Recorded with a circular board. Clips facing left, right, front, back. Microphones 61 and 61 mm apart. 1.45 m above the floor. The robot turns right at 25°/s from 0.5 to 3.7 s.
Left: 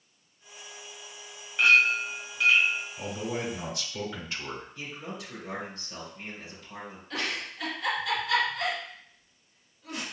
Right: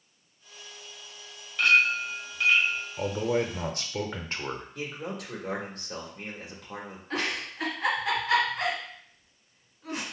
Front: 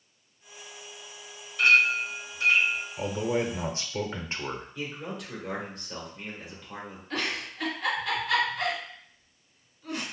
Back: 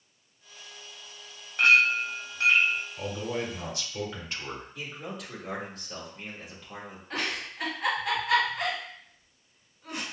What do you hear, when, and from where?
1.6 s a clink: 160° left, 1.3 m; by 2.8 s 170° right, 1.3 m
3.0 s a man speaking: 70° right, 0.7 m; by 4.7 s 55° right, 0.7 m
4.8 s a man speaking: 90° right, 1.5 m
7.1 s a giggle: 115° right, 2 m